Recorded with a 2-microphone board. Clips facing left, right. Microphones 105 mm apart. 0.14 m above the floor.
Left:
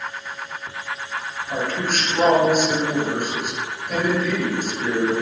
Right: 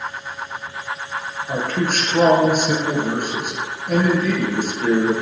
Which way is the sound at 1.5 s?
50° right (ahead or behind).